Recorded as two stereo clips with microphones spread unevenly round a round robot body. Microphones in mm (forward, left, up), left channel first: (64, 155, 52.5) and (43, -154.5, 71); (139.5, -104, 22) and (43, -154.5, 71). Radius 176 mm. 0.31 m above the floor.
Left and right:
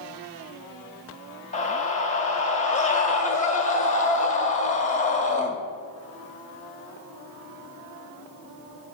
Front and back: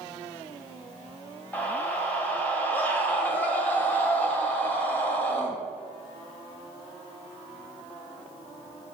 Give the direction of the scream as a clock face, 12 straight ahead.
11 o'clock.